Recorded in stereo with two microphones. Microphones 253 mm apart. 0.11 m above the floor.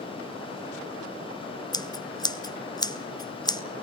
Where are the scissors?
15° left (ahead or behind), 0.9 m.